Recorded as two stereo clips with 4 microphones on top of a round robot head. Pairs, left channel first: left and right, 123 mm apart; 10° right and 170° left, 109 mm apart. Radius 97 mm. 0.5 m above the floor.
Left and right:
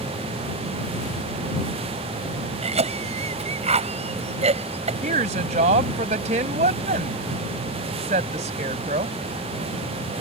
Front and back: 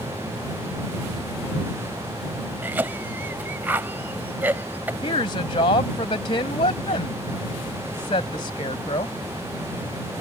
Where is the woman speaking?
60° right.